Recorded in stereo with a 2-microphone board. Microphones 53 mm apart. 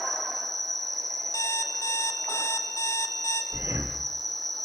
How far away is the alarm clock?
About 2 m.